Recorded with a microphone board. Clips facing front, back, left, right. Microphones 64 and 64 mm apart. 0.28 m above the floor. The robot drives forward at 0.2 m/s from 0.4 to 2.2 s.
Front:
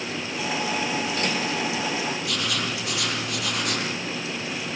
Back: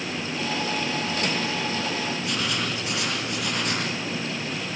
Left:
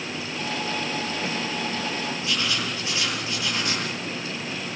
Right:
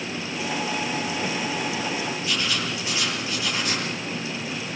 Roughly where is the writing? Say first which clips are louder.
Even, even; behind.